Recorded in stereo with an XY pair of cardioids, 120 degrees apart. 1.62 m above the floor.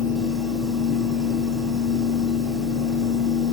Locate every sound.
0.0 s a fan: 5° right, 2 m